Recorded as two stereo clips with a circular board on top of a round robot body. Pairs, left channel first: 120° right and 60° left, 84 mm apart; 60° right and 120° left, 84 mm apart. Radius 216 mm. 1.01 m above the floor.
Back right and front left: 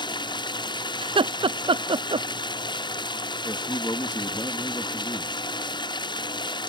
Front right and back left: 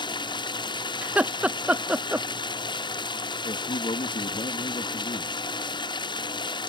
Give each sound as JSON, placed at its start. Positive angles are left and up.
{"t": 0.0, "sound": "running water", "azimuth_deg": -90}
{"t": 1.0, "sound": "laughter", "azimuth_deg": 45}
{"t": 3.4, "sound": "a man speaking", "azimuth_deg": -65}